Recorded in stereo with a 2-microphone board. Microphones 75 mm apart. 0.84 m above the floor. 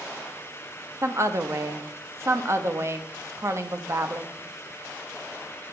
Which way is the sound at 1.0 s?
40° right (ahead or behind).